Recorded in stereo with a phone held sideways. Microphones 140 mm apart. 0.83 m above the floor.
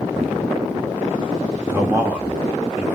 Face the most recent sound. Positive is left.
turn(degrees=-15)  # may be behind; listen again after turning